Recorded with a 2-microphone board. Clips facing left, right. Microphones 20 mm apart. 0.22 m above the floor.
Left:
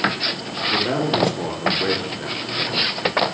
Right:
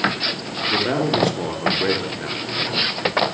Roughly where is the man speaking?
Centre.